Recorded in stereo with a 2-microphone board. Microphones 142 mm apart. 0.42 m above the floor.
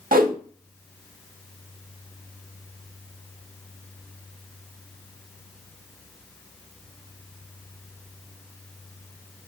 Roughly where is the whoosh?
Right.